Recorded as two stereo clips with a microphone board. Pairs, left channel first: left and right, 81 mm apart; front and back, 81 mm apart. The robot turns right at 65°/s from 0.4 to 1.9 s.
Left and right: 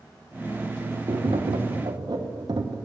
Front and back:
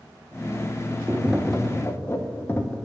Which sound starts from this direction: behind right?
Tapping, at 1.1 s.